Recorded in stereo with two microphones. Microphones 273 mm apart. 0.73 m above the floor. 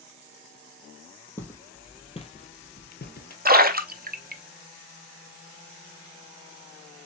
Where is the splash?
35° right (ahead or behind), 0.6 m.